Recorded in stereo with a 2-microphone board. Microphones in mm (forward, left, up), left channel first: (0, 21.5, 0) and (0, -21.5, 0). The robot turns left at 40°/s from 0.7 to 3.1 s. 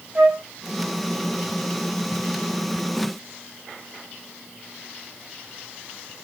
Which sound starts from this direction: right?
A flute, at 0.1 s.